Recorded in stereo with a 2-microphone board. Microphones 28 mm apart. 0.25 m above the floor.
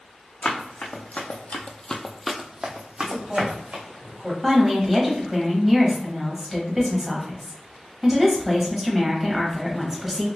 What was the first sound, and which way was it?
Running footsteps, 80° left.